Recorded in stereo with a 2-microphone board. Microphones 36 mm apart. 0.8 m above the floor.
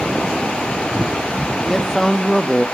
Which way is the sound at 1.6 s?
5° left (ahead or behind).